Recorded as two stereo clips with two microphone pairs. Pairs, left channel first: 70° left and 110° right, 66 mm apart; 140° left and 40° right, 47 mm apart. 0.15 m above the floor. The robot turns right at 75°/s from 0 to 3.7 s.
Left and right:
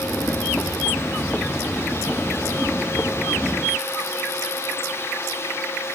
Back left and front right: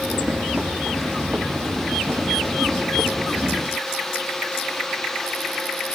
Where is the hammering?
No hammering in this recording.